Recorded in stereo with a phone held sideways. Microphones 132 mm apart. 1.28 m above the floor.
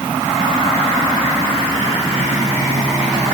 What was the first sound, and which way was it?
Only background noise.